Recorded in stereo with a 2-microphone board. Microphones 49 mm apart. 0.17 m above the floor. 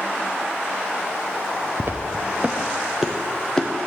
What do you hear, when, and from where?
1.8 s footsteps: 55° right (ahead or behind), 1.1 m; by 3.7 s 15° left (ahead or behind), 1.5 m